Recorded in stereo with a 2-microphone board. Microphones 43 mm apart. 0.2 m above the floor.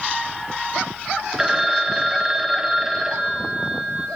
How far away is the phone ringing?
About 0.6 m.